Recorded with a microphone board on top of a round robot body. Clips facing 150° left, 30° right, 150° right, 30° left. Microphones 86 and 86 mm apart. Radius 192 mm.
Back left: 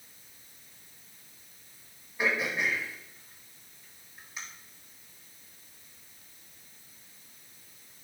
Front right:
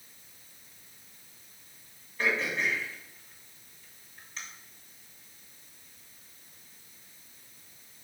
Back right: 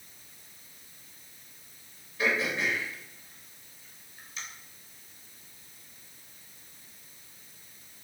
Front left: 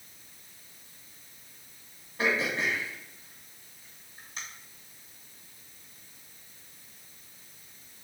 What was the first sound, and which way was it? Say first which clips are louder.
Throat clearing: even, even; 75° left.